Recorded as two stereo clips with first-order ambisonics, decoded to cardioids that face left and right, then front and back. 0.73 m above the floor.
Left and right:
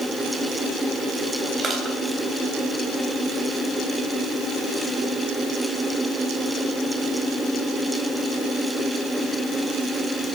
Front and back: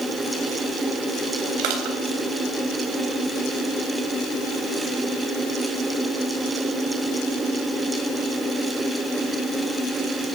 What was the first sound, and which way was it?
Crushing, 170° right.